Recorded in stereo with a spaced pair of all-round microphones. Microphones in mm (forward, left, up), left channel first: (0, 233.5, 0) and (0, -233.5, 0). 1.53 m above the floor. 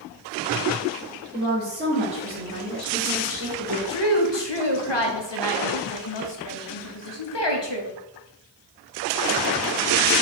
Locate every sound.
1.3 s a woman speaking: 20° right (ahead or behind), 2.5 m; by 3.8 s 50° right (ahead or behind), 1.5 m
3.9 s a woman speaking: 65° left (ahead or behind), 0.9 m